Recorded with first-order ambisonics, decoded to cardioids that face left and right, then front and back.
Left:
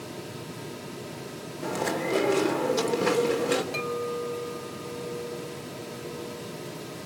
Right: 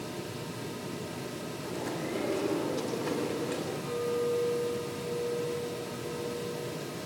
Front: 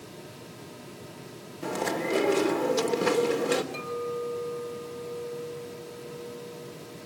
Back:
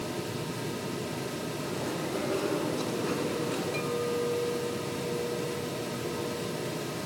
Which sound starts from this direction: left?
A clink, at 3.7 s.